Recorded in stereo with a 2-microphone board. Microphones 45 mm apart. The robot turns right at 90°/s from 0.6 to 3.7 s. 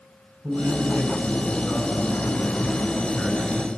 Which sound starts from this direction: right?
A man speaking, at 0.4 s.